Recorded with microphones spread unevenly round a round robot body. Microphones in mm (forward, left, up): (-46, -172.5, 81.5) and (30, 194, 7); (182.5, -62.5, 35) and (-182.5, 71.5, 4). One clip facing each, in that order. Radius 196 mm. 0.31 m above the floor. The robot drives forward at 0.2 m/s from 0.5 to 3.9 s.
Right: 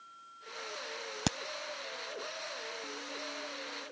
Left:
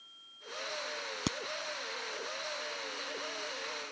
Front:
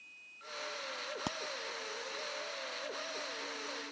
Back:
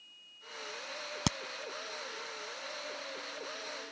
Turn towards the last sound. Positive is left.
turn(degrees=-175)